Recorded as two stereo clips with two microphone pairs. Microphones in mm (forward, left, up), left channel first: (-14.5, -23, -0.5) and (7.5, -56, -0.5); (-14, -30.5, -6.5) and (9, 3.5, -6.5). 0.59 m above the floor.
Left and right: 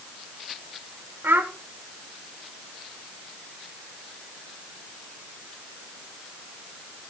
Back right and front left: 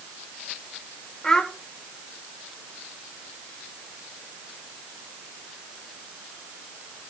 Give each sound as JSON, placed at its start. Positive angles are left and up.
{"t": 1.2, "sound": "a child speaking", "azimuth_deg": -50, "distance_m": 1.5}